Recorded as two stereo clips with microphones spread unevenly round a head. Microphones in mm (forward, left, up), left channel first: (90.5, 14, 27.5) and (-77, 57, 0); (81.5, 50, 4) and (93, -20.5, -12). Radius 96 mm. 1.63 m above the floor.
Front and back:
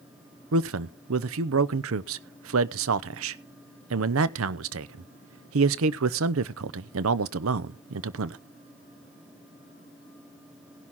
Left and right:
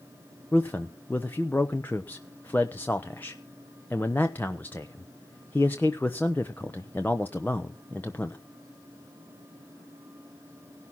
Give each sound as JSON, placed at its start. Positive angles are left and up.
{"t": 0.5, "sound": "a man speaking", "azimuth_deg": 175, "distance_m": 0.7}